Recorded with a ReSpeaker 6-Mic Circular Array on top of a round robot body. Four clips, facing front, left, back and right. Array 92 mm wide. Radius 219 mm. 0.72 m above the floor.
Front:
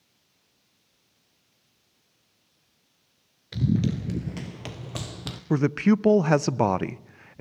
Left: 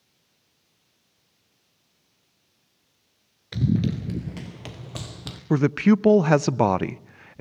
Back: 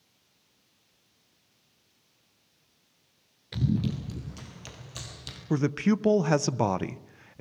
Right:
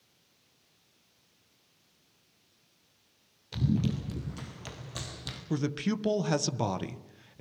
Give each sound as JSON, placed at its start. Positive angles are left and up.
{"t": 3.5, "sound": "running footsteps", "azimuth_deg": 85, "distance_m": 0.7}
{"t": 5.5, "sound": "a man speaking", "azimuth_deg": 70, "distance_m": 0.8}